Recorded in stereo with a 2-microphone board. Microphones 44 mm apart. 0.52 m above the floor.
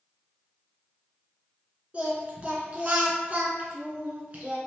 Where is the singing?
30° right (ahead or behind), 1.2 m.